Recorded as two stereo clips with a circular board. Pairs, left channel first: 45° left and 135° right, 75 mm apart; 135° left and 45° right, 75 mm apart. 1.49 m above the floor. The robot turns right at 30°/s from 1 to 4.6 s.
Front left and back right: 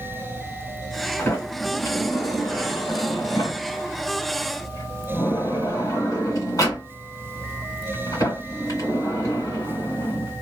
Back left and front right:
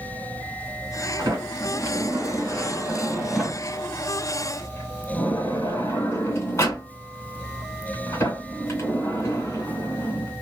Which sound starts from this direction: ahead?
A sliding door, at 1.2 s.